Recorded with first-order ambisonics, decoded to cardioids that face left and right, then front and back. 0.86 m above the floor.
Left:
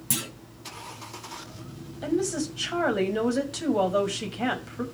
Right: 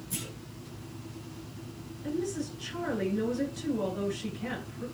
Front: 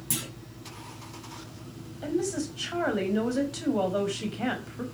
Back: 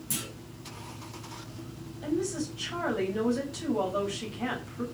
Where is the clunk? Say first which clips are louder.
Left 9 dB, front 2 dB; 75° left, 5 m.